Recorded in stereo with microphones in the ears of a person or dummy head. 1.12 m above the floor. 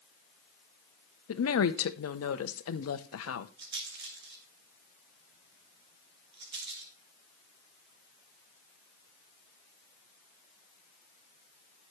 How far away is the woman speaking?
About 1.0 m.